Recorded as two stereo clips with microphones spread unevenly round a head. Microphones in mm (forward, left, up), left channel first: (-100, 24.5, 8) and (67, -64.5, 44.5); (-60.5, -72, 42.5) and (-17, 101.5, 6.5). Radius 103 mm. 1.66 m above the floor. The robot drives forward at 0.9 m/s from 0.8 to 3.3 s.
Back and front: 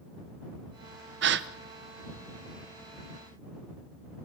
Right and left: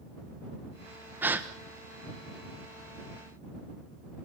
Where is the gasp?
10° right, 1.1 m.